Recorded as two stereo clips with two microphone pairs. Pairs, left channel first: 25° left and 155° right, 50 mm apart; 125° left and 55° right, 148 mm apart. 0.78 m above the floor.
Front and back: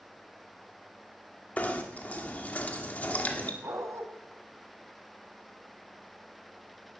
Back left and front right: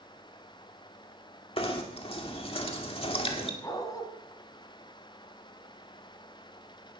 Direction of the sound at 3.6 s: 165° right.